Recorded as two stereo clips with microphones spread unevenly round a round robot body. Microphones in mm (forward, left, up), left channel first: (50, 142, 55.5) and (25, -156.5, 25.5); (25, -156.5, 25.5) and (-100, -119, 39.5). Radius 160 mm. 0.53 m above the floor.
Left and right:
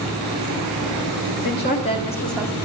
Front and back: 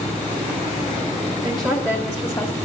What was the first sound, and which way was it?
A woman speaking, 85° left.